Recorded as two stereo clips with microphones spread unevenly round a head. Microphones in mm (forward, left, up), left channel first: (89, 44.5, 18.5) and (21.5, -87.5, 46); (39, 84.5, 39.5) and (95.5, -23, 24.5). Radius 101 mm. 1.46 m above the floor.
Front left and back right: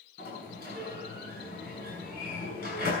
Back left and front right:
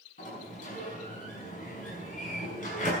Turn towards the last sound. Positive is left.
turn(degrees=110)